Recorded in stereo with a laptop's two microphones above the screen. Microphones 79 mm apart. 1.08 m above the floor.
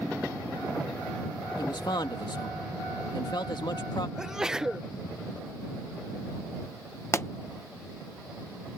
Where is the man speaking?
65° left (ahead or behind).